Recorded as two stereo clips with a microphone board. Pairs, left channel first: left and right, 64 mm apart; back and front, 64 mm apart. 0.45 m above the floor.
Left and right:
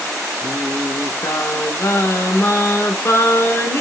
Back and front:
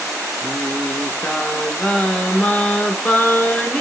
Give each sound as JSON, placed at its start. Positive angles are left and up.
{"t": 0.4, "sound": "singing", "azimuth_deg": 120, "distance_m": 0.6}